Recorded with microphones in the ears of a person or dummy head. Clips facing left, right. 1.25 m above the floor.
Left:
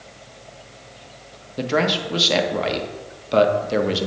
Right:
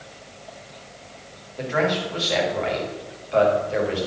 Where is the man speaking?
55° left (ahead or behind), 1.2 m.